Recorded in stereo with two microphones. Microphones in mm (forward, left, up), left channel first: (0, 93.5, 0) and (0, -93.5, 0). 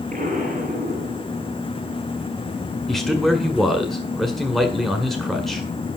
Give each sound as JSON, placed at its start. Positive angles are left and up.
{"t": 0.1, "sound": "an explosion", "side_deg": -45, "distance_m": 4.5}
{"t": 2.9, "sound": "a man speaking", "side_deg": 0, "distance_m": 1.8}